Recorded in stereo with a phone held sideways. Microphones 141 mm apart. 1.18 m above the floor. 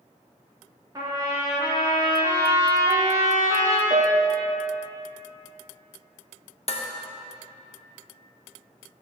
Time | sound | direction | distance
0.9 | a trumpet | 25° right (ahead or behind) | 1.2 m
3.9 | a piano | 45° right (ahead or behind) | 0.5 m
6.7 | dishes clattering | 45° left (ahead or behind) | 0.6 m